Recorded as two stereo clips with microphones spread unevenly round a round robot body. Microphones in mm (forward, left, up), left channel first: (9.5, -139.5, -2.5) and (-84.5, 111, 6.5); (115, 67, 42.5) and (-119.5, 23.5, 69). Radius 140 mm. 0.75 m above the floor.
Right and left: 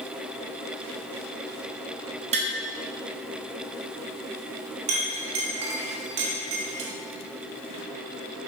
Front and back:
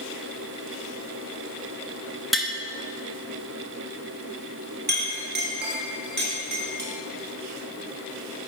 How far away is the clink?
About 1.2 m.